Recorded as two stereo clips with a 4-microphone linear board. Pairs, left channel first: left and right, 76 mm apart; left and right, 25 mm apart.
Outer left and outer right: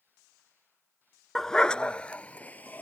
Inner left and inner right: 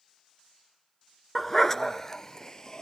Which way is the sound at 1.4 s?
5° left (ahead or behind).